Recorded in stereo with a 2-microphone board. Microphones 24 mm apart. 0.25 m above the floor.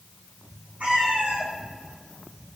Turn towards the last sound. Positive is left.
turn(degrees=-90)